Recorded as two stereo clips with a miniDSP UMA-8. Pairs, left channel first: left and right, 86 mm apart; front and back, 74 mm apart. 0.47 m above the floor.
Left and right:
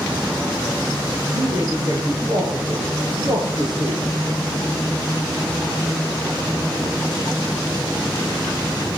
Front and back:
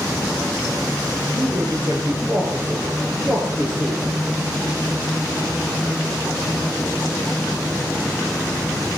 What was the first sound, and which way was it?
A man speaking, 135° right.